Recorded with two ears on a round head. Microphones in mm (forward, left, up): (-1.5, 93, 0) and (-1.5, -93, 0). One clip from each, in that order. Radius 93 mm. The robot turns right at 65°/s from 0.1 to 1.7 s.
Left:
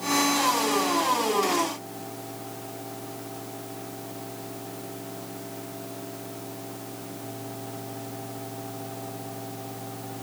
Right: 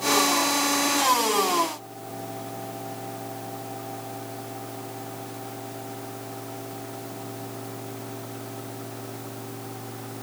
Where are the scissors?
No scissors in this recording.